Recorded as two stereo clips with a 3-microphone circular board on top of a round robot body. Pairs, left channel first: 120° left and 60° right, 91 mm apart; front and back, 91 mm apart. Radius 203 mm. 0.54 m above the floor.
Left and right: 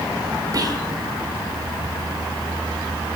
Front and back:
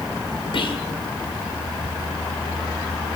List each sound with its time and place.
0.5 s whispering: 15° right, 2 m